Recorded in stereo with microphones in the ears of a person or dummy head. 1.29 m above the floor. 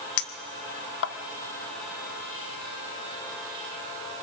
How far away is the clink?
About 0.9 m.